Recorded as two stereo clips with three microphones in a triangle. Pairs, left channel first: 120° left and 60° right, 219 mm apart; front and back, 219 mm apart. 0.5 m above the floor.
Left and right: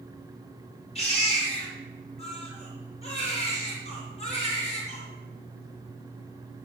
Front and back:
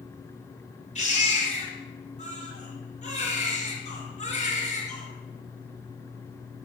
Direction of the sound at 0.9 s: 60° left.